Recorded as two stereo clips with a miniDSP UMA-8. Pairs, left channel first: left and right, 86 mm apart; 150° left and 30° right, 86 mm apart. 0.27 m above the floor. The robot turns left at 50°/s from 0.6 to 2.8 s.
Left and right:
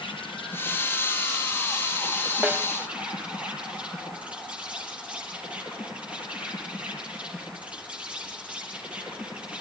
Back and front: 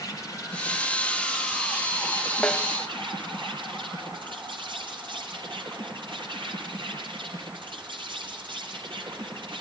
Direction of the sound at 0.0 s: 95° left.